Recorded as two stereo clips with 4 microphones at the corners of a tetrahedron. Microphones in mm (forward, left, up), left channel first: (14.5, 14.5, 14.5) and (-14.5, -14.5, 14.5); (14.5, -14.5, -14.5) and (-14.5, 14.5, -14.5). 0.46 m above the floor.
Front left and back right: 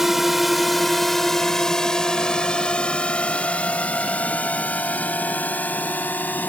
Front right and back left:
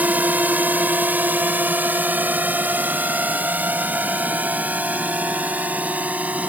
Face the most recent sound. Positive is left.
turn(degrees=85)